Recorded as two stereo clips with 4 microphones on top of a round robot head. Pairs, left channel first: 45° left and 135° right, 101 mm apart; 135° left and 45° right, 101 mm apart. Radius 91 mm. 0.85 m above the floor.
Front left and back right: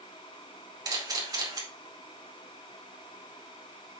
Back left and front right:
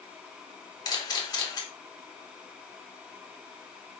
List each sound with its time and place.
0.8 s a camera shutter: 175° left, 2.5 m